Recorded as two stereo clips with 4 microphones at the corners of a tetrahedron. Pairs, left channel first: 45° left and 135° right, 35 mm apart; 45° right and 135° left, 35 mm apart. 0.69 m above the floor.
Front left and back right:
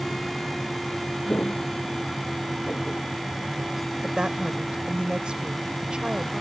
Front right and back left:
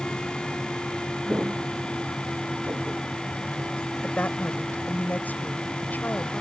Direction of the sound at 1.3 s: 85° left.